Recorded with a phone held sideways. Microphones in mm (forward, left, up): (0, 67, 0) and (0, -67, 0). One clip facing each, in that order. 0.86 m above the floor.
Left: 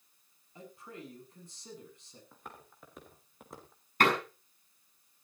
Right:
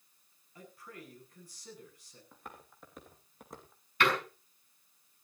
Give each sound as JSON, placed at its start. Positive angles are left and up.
{"t": 0.6, "sound": "a man speaking", "side_deg": 25, "distance_m": 8.5}
{"t": 2.3, "sound": "footsteps", "side_deg": 0, "distance_m": 5.5}
{"t": 4.0, "sound": "a door slam", "side_deg": 45, "distance_m": 6.0}